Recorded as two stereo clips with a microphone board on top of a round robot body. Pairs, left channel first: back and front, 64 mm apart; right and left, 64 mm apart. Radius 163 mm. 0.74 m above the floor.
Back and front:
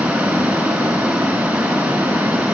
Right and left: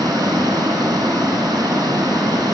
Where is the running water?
75° left, 4 m.